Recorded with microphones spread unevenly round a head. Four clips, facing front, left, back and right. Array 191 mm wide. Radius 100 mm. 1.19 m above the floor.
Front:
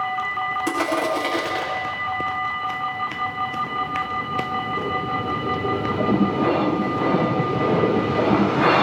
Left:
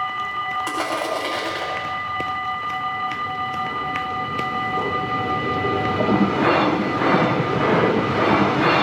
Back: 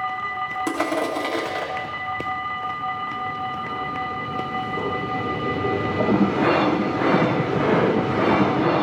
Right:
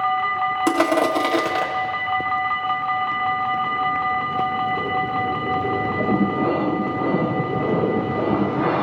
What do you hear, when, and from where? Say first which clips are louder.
0.7 s crushing: right 6 dB, front 1 dB; 100° right, 2.5 m